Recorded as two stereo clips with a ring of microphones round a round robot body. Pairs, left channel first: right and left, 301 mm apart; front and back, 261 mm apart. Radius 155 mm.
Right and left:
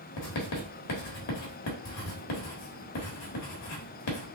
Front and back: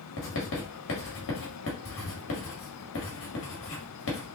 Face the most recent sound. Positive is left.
turn(degrees=-50)